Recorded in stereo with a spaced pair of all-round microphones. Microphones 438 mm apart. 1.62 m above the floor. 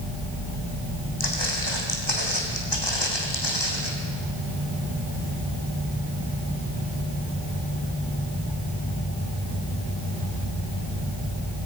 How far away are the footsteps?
About 4.5 m.